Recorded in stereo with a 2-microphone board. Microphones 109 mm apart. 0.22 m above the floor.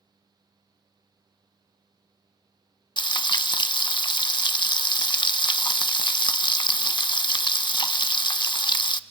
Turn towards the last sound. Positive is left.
turn(degrees=45)  # may be behind; listen again after turning